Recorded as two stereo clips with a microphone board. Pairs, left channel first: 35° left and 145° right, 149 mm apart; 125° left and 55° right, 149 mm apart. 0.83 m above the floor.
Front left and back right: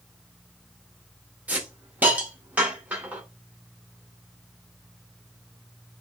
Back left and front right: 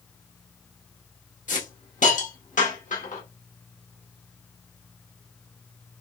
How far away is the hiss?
About 1.5 m.